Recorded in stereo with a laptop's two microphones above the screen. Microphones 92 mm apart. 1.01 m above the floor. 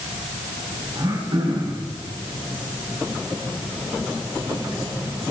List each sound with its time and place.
0.9 s throat clearing: 75° right (ahead or behind), 6 m